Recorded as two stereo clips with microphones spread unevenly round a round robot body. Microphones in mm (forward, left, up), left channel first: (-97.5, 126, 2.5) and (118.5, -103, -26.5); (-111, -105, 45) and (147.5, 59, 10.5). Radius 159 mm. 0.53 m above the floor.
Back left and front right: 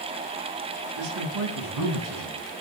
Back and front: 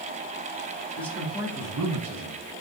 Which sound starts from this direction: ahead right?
A man speaking, at 1.0 s.